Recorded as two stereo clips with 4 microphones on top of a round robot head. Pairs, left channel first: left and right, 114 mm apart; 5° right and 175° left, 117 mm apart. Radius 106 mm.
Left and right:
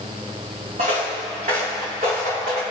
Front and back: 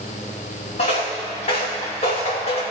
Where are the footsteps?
45° right, 1.9 m; by 2.6 s 55° right, 3 m.